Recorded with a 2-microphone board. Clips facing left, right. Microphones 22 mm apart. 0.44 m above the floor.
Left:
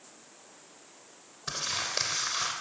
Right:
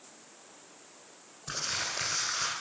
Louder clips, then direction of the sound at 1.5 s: Left 1 dB; 50° left (ahead or behind).